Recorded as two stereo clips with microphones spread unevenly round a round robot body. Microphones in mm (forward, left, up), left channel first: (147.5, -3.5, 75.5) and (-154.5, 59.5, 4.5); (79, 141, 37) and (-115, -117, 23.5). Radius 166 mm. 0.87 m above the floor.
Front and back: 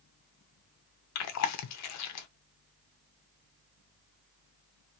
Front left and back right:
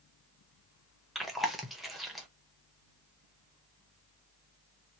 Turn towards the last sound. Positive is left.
turn(degrees=-40)